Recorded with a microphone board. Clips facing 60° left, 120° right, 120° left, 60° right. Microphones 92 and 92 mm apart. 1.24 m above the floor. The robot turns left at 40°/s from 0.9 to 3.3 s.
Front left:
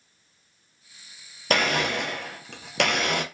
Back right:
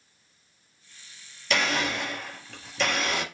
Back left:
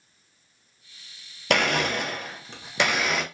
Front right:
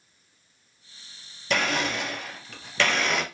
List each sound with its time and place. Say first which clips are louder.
1.5 s a blender: front left 3 dB, back left 3 dB; 100° left, 0.8 m; by 3.2 s 30° left, 0.8 m